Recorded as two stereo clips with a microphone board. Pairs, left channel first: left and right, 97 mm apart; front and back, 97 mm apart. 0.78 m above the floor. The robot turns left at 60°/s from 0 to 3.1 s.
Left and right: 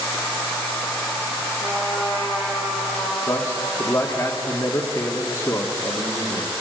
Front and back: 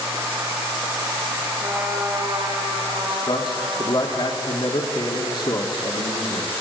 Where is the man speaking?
30° left, 1.9 m.